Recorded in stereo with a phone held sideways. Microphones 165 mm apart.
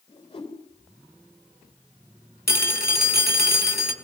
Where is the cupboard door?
No cupboard door in this recording.